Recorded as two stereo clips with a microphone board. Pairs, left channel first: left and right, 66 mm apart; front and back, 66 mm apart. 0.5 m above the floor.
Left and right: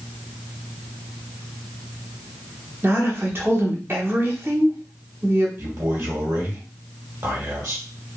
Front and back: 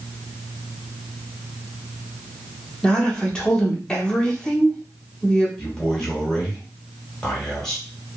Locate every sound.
2.8 s a woman speaking: 70° right, 0.9 m
5.6 s a man speaking: 80° right, 1.5 m